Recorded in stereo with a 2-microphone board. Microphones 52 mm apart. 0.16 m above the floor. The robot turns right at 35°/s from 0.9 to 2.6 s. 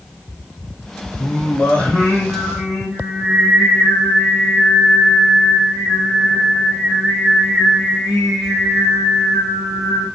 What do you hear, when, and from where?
1.2 s singing: 140° left, 8 m; by 10.1 s 170° right, 8 m